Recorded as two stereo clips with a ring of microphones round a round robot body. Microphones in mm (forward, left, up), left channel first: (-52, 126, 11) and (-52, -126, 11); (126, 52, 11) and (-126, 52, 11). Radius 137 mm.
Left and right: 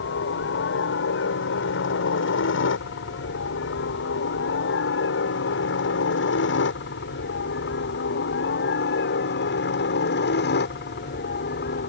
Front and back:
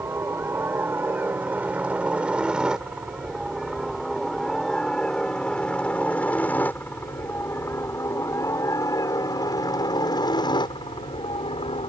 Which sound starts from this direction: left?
A helicopter, at 0.0 s.